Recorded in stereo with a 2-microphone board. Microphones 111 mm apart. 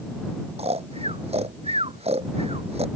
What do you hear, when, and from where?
0.6 s snoring: 80° right